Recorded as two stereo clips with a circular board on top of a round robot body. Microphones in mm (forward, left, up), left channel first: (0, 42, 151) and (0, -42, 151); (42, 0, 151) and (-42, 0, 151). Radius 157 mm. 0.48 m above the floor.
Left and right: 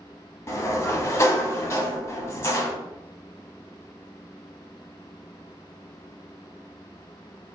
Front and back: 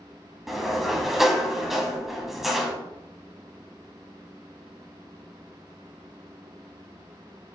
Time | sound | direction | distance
0.5 | a sliding door | 95° left | 1.3 m